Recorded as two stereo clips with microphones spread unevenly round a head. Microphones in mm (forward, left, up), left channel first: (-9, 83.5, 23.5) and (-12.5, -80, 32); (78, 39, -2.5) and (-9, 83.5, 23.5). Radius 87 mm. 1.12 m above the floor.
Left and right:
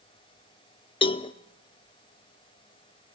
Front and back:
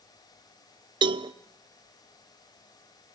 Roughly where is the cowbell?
Behind left.